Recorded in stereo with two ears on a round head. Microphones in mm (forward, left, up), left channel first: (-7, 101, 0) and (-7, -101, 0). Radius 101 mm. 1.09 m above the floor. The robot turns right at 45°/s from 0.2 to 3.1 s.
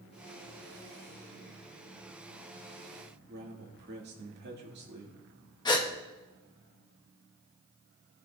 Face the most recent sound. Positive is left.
turn(degrees=20)  # may be behind; listen again after turning